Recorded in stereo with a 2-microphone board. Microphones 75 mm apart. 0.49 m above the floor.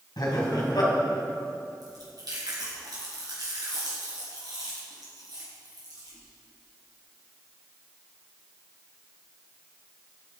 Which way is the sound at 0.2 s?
65° left (ahead or behind).